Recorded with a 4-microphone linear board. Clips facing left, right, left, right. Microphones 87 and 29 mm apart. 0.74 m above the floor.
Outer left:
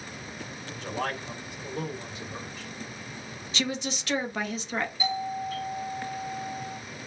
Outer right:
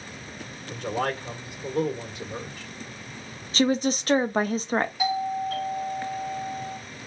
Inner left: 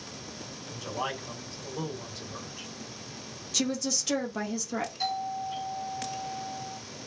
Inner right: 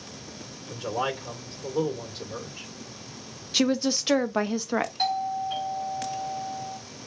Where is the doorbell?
65° right (ahead or behind), 2.5 m.